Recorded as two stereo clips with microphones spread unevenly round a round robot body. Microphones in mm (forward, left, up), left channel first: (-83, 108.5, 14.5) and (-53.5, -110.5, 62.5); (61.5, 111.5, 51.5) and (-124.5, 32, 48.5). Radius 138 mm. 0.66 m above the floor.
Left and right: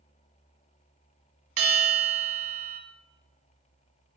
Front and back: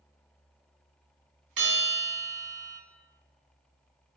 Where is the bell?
110° right, 1.8 m.